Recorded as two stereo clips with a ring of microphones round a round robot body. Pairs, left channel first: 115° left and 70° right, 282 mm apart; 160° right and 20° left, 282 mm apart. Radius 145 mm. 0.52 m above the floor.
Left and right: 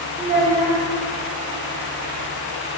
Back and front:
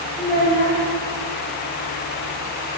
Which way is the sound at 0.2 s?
120° left.